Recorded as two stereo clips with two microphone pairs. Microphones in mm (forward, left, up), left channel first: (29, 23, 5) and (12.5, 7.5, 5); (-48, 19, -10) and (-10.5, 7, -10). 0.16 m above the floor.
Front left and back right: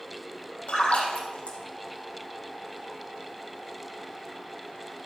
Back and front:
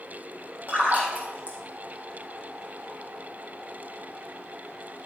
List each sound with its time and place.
0.7 s a splash: 25° left, 3 m